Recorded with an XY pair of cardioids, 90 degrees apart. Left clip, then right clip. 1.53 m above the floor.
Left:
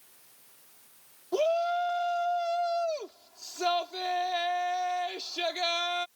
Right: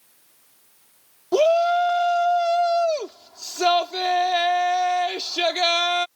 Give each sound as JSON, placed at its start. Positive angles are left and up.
{"t": 1.3, "sound": "a shout", "azimuth_deg": -70}